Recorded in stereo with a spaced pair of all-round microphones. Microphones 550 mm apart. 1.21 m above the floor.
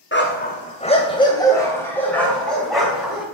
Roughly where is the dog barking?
Left.